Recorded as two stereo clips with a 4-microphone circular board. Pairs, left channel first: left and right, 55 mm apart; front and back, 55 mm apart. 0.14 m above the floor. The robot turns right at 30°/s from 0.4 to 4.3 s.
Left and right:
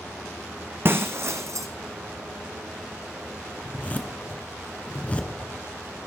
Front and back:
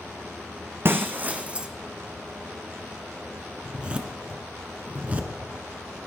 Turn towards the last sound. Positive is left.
turn(degrees=135)